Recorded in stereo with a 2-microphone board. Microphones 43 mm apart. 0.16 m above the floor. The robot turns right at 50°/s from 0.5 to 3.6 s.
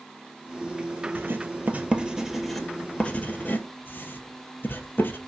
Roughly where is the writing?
Right.